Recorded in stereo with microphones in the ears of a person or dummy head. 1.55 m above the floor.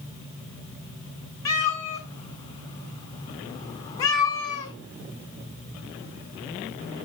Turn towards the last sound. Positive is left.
turn(degrees=25)  # may be behind; listen again after turning